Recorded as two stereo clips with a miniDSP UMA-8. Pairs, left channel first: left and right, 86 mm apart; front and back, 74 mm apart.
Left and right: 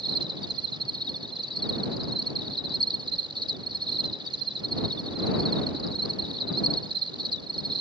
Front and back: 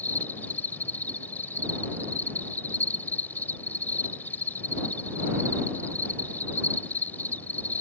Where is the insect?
65° right.